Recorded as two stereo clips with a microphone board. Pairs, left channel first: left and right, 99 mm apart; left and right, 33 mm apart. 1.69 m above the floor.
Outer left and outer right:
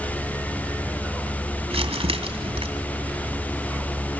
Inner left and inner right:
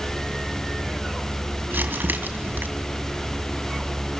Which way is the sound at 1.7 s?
70° right (ahead or behind).